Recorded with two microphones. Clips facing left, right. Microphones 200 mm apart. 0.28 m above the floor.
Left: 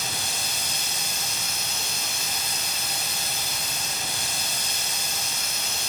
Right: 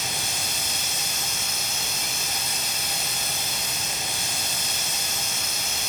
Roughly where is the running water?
Left.